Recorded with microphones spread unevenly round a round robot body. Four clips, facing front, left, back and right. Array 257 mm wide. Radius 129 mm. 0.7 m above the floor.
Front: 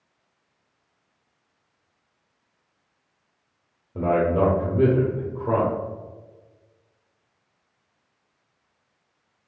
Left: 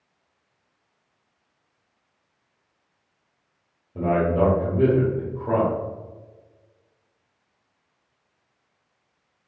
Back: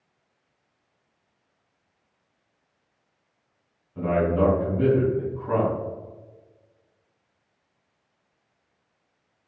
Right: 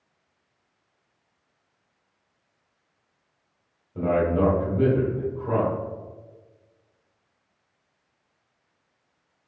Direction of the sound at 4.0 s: 15° left.